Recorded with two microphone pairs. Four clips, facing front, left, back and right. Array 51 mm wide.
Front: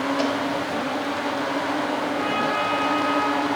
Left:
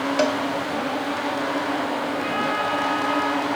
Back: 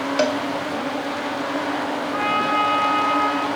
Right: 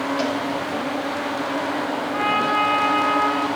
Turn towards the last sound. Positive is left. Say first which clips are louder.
# right 4 dB, back 6 dB
turn(degrees=-150)